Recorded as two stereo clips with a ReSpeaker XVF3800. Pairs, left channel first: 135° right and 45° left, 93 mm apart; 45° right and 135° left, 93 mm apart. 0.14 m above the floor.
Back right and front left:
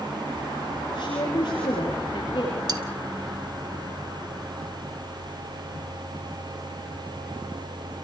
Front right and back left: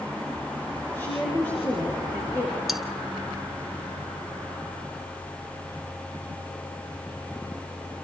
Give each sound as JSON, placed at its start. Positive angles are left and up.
{"t": 0.9, "sound": "a woman speaking", "azimuth_deg": -110, "distance_m": 8.5}
{"t": 2.7, "sound": "cutlery clinking", "azimuth_deg": 45, "distance_m": 1.1}